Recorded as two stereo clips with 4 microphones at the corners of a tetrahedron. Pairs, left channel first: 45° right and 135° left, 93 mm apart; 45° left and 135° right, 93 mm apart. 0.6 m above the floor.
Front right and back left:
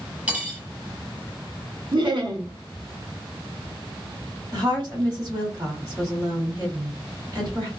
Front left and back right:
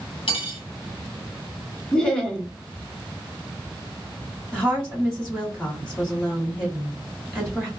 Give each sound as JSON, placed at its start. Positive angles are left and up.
{"t": 0.3, "sound": "cutlery clinking", "azimuth_deg": 60, "distance_m": 1.0}
{"t": 1.9, "sound": "laughter", "azimuth_deg": 125, "distance_m": 1.2}
{"t": 4.5, "sound": "a woman speaking", "azimuth_deg": 140, "distance_m": 1.7}